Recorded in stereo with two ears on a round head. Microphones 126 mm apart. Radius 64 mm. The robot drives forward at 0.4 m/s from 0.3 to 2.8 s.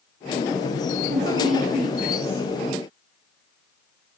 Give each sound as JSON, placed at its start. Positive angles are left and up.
{"t": 1.1, "sound": "a woman speaking", "side_deg": -85, "distance_m": 3.0}